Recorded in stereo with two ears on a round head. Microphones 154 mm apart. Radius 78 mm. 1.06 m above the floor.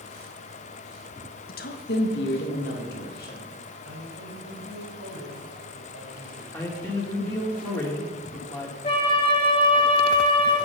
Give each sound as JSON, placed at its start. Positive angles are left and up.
{"t": 1.5, "sound": "a woman speaking", "side_deg": 60, "distance_m": 1.2}
{"t": 3.9, "sound": "a man speaking", "side_deg": -65, "distance_m": 5.5}
{"t": 6.5, "sound": "a man speaking", "side_deg": 10, "distance_m": 2.5}
{"t": 8.8, "sound": "a flute", "side_deg": 30, "distance_m": 2.5}